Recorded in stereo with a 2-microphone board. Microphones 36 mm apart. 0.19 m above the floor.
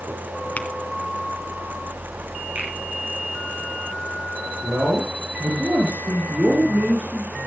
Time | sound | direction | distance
0.6 | tapping | 40° left (ahead or behind) | 2.5 m
2.5 | a finger snap | 70° right (ahead or behind) | 7.5 m
4.6 | a man speaking | 65° right (ahead or behind) | 5 m